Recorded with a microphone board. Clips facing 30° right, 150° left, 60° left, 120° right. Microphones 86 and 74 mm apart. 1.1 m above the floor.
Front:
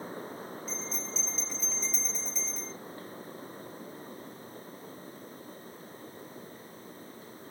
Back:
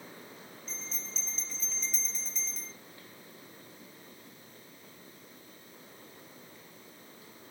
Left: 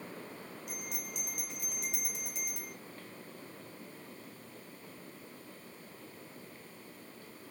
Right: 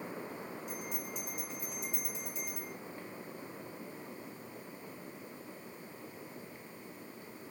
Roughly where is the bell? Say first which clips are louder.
Front 7 dB, right 3 dB; ahead left.